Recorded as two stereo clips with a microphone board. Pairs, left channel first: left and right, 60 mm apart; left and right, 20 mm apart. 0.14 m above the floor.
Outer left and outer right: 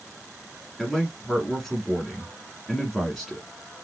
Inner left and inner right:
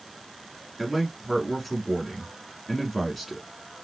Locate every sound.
0.8 s a man speaking: centre (ahead or behind), 1.2 m